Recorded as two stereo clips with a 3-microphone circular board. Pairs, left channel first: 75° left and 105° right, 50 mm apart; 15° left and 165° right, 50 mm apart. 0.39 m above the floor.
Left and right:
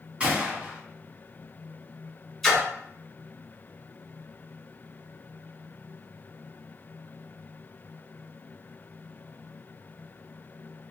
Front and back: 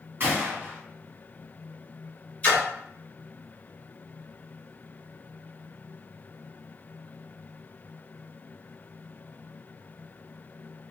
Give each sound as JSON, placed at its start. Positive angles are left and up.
{"t": 0.2, "sound": "a gunshot", "azimuth_deg": -160, "distance_m": 1.8}
{"t": 2.4, "sound": "a splash", "azimuth_deg": 0, "distance_m": 1.4}